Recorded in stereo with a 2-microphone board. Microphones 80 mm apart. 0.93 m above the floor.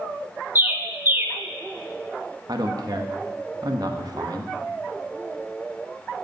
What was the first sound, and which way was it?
A bird, 25° right (ahead or behind).